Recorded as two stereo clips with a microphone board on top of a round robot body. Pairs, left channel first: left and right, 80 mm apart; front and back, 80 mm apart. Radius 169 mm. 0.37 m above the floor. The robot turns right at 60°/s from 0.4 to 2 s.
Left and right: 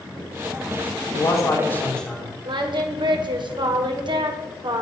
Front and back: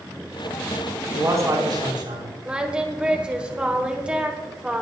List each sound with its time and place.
1.1 s a man speaking: 120° left, 5 m; by 2.4 s 170° left, 5 m
2.5 s singing: 105° right, 1.4 m